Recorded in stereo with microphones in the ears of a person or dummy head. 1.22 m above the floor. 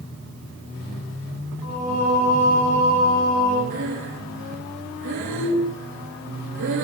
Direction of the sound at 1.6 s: 90° left.